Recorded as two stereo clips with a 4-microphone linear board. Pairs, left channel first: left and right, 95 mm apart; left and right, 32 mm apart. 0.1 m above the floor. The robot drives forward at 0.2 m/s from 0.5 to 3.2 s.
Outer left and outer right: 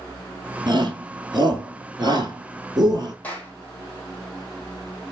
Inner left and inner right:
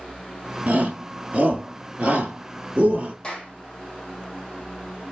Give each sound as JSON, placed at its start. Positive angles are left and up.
{"t": 0.7, "sound": "a shout", "side_deg": -50, "distance_m": 1.7}
{"t": 3.2, "sound": "a clap", "side_deg": 20, "distance_m": 2.0}